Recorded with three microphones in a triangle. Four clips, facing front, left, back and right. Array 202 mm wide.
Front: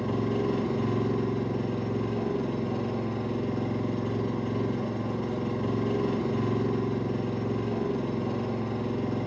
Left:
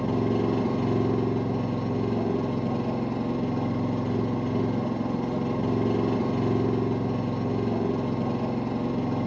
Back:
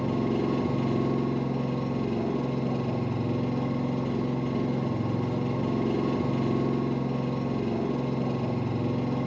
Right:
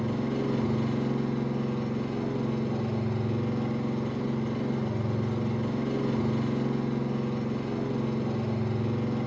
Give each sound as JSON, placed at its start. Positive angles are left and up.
{"t": 0.0, "sound": "an engine running", "azimuth_deg": 105, "distance_m": 2.5}